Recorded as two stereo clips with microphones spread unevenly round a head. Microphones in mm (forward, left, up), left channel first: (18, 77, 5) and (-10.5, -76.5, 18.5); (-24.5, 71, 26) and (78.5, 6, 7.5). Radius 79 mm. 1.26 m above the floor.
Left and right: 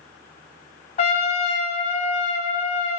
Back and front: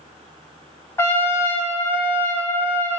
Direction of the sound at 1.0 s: 110° left.